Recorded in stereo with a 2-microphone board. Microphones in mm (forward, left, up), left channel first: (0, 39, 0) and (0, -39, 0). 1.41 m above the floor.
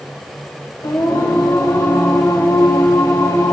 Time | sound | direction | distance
0.8 | singing | 65° left (ahead or behind) | 4 m